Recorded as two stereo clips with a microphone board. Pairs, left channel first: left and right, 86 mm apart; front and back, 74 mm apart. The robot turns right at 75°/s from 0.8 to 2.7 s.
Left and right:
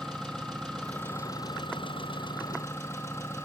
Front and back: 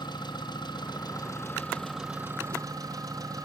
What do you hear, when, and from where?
0.0 s an engine running: 10° left, 3 m; by 3.4 s 150° left, 3 m